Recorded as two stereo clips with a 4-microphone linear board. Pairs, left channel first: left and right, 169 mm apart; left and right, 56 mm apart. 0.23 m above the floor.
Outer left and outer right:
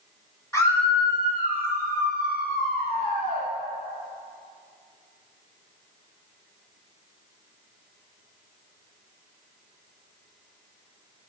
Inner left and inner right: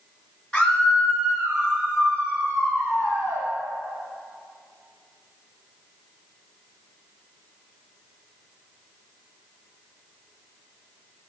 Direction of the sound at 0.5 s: 20° left (ahead or behind).